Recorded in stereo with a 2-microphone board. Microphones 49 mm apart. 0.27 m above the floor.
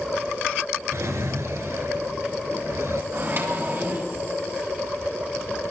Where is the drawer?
75° right (ahead or behind), 1.3 m.